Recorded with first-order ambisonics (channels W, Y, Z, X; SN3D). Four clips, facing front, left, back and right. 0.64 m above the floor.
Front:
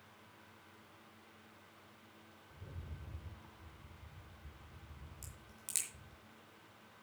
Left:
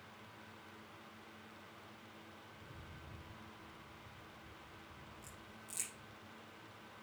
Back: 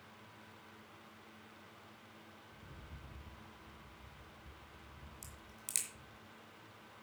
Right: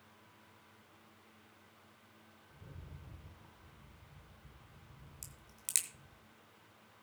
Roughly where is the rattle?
Ahead right.